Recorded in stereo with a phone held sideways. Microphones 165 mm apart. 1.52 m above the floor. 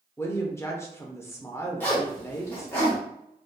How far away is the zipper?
About 0.9 m.